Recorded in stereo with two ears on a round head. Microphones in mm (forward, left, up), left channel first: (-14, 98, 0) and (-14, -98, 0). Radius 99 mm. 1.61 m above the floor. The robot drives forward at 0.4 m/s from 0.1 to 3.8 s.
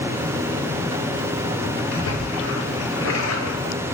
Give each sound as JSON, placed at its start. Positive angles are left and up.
{"t": 1.9, "sound": "a splash", "side_deg": 75, "distance_m": 1.5}